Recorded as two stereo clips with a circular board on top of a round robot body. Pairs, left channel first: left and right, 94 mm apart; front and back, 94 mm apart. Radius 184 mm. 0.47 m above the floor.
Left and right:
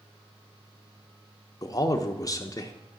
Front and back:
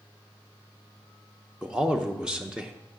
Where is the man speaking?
105° left, 0.8 m.